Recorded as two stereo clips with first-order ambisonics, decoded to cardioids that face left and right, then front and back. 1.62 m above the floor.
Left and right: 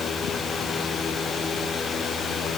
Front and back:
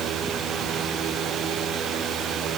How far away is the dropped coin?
No dropped coin in this recording.